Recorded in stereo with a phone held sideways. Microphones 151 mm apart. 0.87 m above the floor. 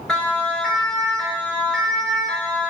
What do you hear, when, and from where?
0.1 s a siren: 5° left (ahead or behind), 6.5 m